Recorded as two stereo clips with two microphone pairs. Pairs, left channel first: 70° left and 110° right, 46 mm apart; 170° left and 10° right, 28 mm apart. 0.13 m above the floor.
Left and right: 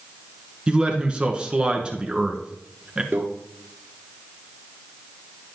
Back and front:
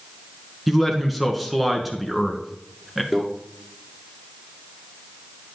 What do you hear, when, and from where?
0.7 s a man speaking: 95° right, 1.3 m
3.1 s a microwave: 90° right, 1.8 m